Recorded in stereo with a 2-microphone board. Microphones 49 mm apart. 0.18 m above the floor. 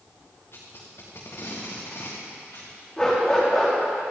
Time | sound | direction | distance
0.5 | tape being pulled | 55° left (ahead or behind) | 4.5 m
3.0 | a dog barking | 10° left (ahead or behind) | 5.5 m